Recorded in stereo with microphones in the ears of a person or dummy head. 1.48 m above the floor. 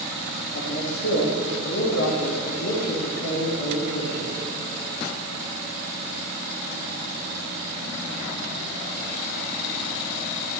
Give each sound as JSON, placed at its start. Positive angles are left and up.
{"t": 0.6, "sound": "a man speaking", "side_deg": 60, "distance_m": 2.5}